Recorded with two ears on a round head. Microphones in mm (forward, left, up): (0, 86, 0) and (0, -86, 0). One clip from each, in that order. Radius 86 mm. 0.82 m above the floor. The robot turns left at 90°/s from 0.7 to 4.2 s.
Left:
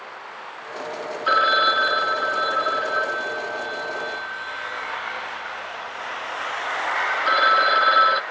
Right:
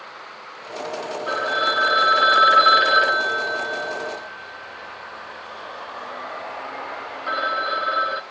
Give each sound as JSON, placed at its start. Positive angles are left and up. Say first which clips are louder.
{"t": 1.3, "sound": "a phone ringing", "louder": "left 5 dB", "azimuth_deg": 50, "distance_m": 0.5}